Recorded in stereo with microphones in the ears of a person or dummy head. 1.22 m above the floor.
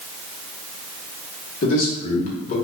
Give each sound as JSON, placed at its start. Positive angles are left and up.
{"t": 1.6, "sound": "a man speaking", "side_deg": 45, "distance_m": 1.3}